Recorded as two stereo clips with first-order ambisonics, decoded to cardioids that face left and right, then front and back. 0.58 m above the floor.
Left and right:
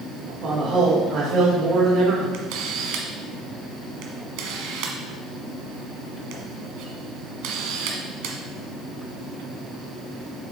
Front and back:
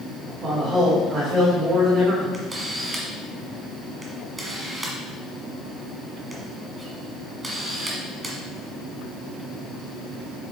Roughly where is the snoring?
I don't hear snoring.